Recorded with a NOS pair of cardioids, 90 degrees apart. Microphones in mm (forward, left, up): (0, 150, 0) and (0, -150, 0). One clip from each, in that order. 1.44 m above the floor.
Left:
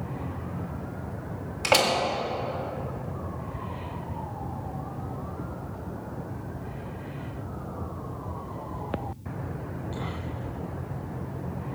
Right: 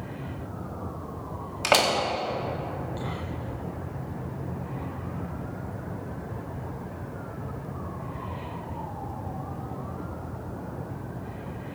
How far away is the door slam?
About 2.0 m.